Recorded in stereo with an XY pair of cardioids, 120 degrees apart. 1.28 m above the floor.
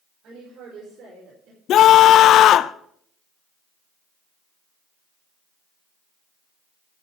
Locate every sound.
0.2 s a woman speaking: 65° right, 5 m
1.7 s a scream: 60° left, 0.6 m